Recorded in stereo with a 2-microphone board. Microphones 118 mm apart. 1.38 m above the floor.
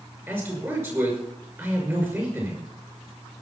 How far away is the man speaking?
About 6 m.